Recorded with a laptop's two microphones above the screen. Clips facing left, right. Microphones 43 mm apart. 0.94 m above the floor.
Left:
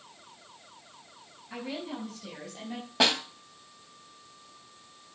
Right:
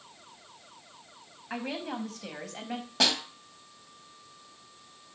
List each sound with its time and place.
1.5 s a woman speaking: 70° right (ahead or behind), 5 m; by 2.9 s 75° right (ahead or behind), 4.5 m
3.0 s a snare drum: 15° left (ahead or behind), 2 m